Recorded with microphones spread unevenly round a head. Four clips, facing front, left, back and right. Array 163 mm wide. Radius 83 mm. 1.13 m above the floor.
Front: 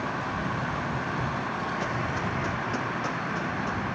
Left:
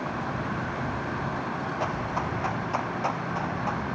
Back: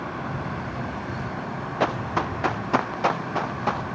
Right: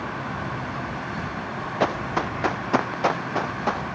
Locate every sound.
1.8 s running footsteps: 125° right; by 3.9 s 115° right